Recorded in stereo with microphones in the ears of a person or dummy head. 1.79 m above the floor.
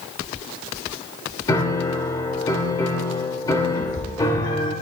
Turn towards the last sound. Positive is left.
turn(degrees=50)  # may be behind; listen again after turning